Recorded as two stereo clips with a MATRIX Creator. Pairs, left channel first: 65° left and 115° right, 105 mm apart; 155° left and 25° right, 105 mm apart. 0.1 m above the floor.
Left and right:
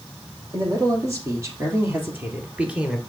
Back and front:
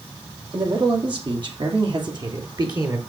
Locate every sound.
0.5 s a man speaking: 60° right, 4 m; by 3.0 s 35° right, 2 m